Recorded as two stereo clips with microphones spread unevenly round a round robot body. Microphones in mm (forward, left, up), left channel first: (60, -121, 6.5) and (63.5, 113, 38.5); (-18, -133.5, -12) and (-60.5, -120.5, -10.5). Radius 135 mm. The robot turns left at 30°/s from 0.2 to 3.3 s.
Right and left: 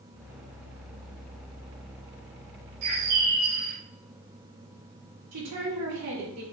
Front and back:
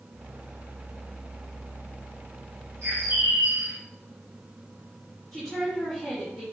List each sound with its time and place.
2.8 s a bird: 110° left, 1.6 m; by 3.8 s 95° left, 1.6 m
5.3 s a woman speaking: 70° left, 3.5 m